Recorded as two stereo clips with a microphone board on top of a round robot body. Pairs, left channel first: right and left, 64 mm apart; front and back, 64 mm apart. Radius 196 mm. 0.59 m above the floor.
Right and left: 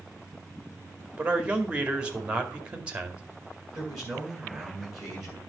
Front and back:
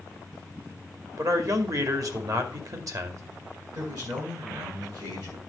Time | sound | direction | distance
1.2 | a man speaking | 160° left | 2.5 m
3.7 | a man speaking | 170° left | 8 m